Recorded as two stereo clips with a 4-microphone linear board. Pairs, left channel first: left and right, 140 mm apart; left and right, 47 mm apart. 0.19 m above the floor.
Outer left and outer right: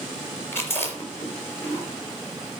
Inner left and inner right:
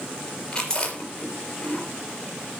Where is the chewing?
15° left (ahead or behind), 3.5 m.